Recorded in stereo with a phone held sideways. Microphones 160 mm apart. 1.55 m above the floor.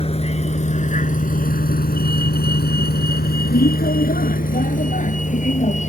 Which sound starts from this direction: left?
A vehicle, at 0.0 s.